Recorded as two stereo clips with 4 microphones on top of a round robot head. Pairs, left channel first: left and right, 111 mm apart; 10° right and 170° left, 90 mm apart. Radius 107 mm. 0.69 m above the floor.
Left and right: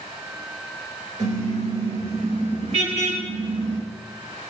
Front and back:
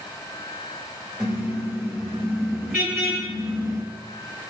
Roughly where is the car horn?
Right.